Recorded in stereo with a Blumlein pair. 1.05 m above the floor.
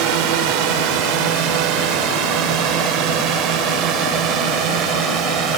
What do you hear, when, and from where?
0.0 s a drone: 45° right; by 5.6 s 35° right